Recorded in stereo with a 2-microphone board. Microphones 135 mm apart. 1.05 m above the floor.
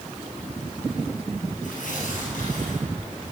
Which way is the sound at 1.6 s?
70° left (ahead or behind).